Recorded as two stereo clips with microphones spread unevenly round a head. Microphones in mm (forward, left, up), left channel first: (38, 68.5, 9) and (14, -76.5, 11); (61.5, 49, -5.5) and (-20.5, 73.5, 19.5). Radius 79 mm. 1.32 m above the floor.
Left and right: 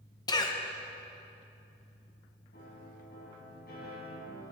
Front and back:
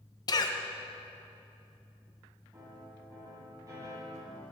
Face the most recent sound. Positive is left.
turn(degrees=115)